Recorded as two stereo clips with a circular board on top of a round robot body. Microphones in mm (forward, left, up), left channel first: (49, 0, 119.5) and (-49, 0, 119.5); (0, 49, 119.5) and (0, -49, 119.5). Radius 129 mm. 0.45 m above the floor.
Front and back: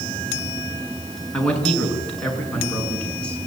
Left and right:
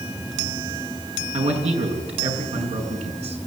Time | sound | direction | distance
1.3 | a man speaking | 80° right | 7 m